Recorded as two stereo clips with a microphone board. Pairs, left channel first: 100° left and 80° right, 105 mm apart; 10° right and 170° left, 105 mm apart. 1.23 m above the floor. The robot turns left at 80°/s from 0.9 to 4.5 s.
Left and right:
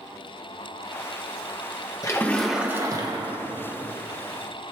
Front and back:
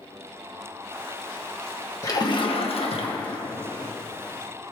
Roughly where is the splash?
Ahead left.